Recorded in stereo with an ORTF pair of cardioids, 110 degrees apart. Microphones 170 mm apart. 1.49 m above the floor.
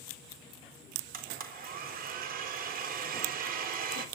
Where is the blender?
60° right, 4 m.